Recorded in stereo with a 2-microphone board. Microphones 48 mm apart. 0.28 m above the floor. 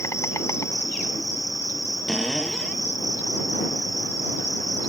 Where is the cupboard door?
15° left (ahead or behind).